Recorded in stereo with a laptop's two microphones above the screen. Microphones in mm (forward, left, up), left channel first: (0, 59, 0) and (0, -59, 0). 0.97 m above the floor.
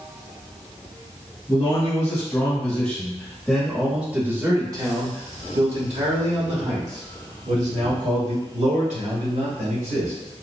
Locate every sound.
1.5 s a man speaking: 40° left (ahead or behind), 1.7 m; by 10.1 s 75° right (ahead or behind), 3 m